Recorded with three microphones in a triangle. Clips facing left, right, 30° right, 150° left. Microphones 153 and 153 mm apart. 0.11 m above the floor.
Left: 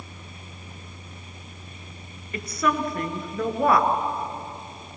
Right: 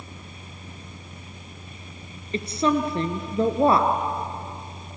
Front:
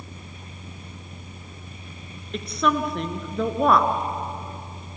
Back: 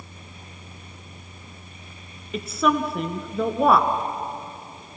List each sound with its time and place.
2.3 s a woman speaking: 125° right, 1.4 m